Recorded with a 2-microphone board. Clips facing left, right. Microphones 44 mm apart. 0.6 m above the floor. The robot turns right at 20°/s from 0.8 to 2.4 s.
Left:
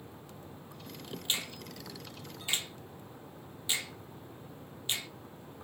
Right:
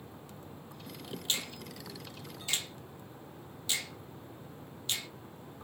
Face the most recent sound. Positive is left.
turn(degrees=20)  # may be behind; listen again after turning